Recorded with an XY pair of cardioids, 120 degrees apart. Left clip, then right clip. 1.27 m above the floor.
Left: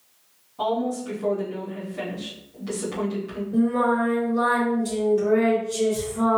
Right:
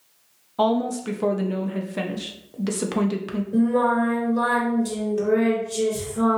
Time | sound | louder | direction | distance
0.6 | a woman speaking | right 3 dB | 70° right | 0.6 m
3.5 | singing | right 1 dB | 30° right | 1.6 m